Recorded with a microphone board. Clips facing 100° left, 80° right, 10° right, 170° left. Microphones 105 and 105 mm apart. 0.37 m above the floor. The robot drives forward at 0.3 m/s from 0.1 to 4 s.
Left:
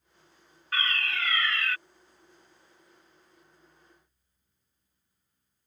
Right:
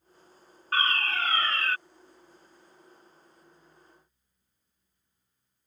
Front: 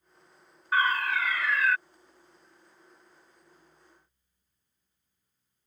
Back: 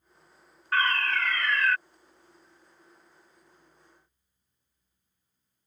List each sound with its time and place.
0.7 s a fire alarm: 85° right; by 1.8 s 95° right